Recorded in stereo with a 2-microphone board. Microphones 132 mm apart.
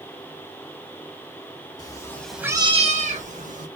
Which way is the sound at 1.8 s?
30° left (ahead or behind).